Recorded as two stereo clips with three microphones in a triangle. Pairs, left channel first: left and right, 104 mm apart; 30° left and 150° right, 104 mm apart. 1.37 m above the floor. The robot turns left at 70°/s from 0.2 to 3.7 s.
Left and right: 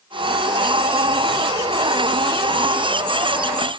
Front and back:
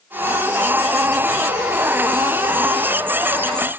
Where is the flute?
I don't hear a flute.